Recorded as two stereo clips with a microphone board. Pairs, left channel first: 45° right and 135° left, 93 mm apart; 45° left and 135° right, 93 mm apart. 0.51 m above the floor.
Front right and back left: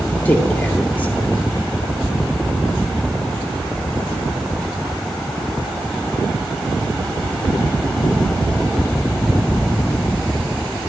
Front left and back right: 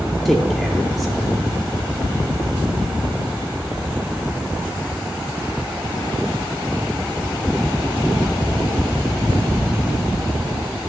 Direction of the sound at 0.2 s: 45° right.